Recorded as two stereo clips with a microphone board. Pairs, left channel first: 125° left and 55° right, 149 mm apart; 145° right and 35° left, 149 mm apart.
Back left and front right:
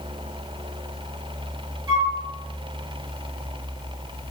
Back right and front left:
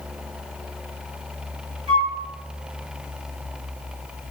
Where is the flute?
5° right, 1.6 m.